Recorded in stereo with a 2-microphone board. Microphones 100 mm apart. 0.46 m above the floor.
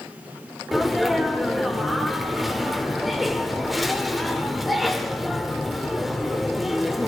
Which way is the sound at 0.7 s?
Centre (ahead or behind).